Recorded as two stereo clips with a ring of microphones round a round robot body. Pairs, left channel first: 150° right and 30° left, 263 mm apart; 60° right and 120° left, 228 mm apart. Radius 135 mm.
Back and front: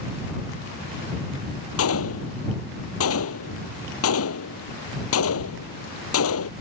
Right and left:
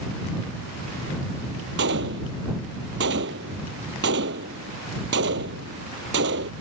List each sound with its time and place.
1.8 s a gunshot: 170° left